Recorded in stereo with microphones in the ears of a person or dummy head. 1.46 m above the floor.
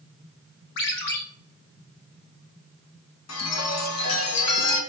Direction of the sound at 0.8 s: 60° left (ahead or behind).